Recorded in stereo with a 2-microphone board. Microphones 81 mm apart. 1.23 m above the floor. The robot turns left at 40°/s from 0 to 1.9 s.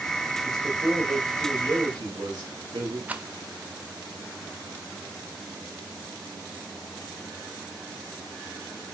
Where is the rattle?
15° right (ahead or behind), 0.7 m.